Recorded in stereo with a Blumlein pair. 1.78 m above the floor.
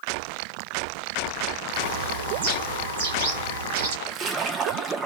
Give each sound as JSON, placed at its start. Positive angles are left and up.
{"t": 1.7, "sound": "a bird", "azimuth_deg": -55, "distance_m": 0.9}
{"t": 4.1, "sound": "a splash", "azimuth_deg": -25, "distance_m": 0.6}